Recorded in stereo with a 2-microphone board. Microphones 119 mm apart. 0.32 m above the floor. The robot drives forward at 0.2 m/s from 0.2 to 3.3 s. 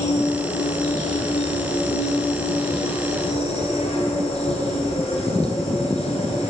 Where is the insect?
85° left, 1.0 m; by 6.5 s 65° left (ahead or behind), 1.1 m.